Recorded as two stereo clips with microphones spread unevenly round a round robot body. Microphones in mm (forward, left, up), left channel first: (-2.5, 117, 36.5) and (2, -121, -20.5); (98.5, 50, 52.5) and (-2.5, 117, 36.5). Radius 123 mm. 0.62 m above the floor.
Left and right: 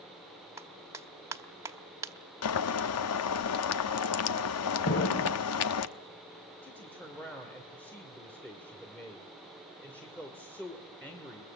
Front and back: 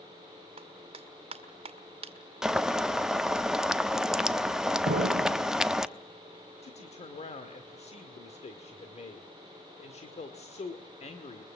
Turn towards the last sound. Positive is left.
turn(degrees=5)